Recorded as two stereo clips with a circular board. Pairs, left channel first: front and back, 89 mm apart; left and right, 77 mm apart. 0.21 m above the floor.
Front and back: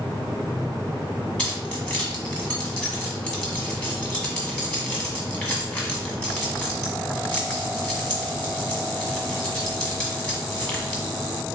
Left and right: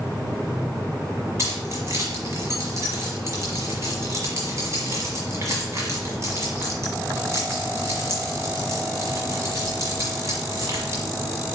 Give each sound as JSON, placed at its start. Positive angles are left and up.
{"t": 1.4, "sound": "keys jangling", "azimuth_deg": -70, "distance_m": 1.3}